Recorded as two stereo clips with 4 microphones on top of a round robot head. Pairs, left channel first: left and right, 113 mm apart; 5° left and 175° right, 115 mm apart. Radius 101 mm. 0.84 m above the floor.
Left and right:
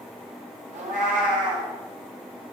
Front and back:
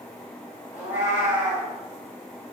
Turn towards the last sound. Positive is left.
turn(degrees=-95)